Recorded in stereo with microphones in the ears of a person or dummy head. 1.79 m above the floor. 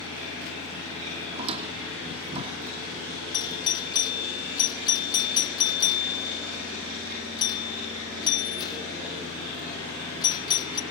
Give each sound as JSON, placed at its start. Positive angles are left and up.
{"t": 1.3, "sound": "a squeak", "side_deg": -35, "distance_m": 2.0}
{"t": 3.3, "sound": "a doorbell", "side_deg": 20, "distance_m": 0.7}